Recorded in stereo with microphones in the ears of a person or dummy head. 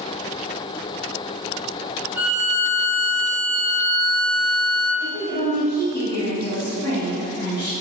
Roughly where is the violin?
Centre.